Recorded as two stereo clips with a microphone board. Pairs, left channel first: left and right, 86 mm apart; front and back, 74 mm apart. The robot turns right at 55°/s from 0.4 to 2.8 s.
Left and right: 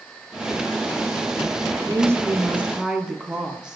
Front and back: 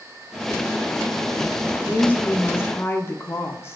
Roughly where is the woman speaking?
Right.